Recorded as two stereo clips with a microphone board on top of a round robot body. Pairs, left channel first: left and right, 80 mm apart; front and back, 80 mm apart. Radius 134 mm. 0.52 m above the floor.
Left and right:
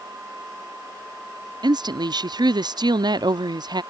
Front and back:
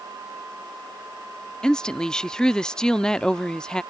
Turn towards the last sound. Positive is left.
turn(degrees=-80)